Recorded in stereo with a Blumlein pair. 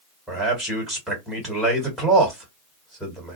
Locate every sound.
0.3 s a man speaking: 5° right, 2 m